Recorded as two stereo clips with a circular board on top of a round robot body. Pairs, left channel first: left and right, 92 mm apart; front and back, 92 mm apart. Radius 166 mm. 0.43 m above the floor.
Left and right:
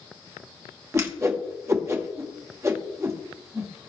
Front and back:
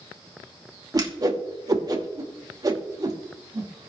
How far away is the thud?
I don't hear a thud.